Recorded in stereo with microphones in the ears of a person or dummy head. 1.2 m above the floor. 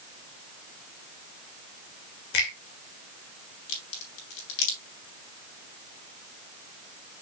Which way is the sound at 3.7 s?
75° left (ahead or behind).